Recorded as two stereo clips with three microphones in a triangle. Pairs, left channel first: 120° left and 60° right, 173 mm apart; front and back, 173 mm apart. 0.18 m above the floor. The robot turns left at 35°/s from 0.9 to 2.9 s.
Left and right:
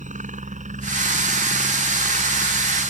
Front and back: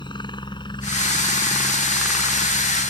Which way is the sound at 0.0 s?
50° right.